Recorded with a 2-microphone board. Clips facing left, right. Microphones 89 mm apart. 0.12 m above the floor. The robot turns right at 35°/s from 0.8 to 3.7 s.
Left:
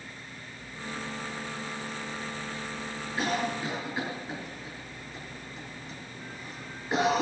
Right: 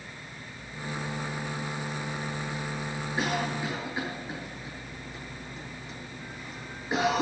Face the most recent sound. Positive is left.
turn(degrees=-10)  # may be behind; listen again after turning